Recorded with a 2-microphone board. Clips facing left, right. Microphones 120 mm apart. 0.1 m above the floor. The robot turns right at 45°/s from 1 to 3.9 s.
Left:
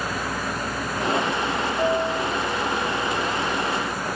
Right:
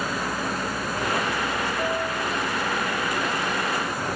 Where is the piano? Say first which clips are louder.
Left 4 dB; 20° left (ahead or behind), 1.6 m; by 2.3 s 40° left (ahead or behind), 1.6 m.